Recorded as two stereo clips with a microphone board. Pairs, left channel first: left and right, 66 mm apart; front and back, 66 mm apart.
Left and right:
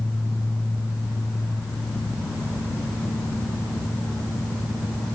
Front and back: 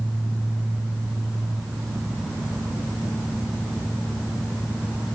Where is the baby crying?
No baby crying in this recording.